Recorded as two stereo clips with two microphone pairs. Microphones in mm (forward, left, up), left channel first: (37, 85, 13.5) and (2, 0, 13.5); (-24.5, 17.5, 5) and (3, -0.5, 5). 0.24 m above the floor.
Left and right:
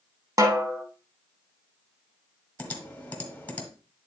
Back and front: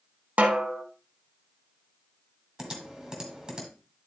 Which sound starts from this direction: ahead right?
A snare drum, at 0.4 s.